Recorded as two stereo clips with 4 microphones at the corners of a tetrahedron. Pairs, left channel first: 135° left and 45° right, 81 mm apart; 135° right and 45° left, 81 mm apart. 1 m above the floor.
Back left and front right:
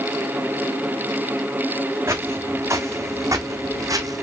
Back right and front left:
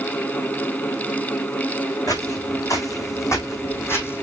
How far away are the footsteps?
About 3 m.